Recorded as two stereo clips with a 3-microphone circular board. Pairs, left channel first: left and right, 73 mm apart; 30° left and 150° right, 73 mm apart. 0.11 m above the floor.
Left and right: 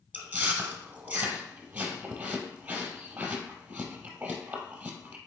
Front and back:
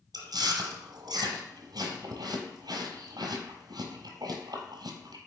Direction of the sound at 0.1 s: 155° right.